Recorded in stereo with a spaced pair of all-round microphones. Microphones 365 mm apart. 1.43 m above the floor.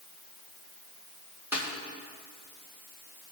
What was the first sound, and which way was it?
A snare drum, 5° right (ahead or behind).